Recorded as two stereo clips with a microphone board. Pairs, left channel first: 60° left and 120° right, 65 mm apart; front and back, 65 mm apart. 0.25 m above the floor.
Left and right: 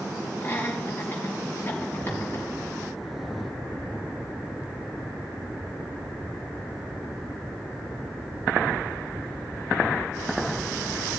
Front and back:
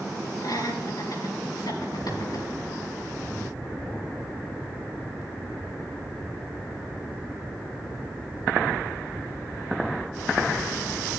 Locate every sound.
0.4 s laughter: 5° left, 4.5 m